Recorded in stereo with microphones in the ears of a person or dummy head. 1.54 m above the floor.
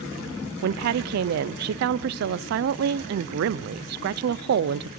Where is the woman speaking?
55° right (ahead or behind), 0.5 m.